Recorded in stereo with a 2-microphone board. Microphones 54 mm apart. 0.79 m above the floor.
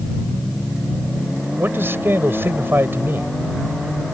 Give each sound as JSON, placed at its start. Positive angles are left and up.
{"t": 1.6, "sound": "a man speaking", "side_deg": -45}